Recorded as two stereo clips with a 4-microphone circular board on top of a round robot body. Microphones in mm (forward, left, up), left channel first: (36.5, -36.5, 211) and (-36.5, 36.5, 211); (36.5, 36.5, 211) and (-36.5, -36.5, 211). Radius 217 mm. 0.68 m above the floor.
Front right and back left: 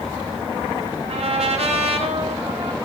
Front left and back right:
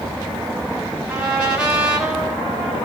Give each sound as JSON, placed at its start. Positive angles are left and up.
{"t": 1.1, "sound": "a trumpet", "azimuth_deg": 145, "distance_m": 4.5}